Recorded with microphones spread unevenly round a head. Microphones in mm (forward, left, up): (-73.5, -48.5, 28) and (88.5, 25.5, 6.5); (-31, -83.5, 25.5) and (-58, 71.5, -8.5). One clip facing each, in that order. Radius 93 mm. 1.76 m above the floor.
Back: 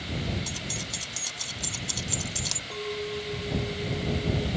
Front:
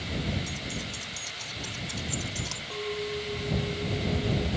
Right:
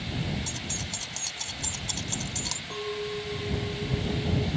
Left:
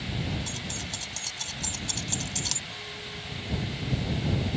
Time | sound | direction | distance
0.5 | keys jangling | 155° right | ?
2.7 | a clink | 70° right | ?